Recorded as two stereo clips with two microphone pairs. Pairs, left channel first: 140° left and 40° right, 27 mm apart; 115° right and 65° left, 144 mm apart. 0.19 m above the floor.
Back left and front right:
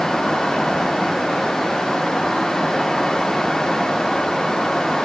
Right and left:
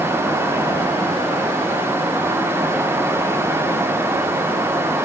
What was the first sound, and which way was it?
Only background noise.